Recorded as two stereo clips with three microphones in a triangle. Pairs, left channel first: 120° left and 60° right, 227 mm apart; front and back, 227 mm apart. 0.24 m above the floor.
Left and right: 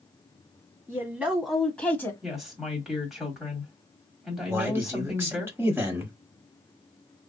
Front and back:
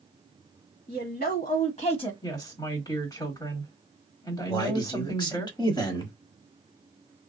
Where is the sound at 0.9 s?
15° left, 1.4 m; by 2.1 s 50° left, 1.1 m.